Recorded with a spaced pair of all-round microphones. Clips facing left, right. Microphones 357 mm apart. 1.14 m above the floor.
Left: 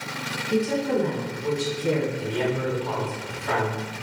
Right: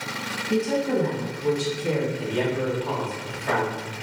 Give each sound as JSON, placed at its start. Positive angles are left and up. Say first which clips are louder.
{"t": 0.5, "sound": "a woman speaking", "louder": "even", "side_deg": -55, "distance_m": 1.8}
{"t": 2.2, "sound": "a man speaking", "louder": "right 1 dB", "side_deg": -65, "distance_m": 1.6}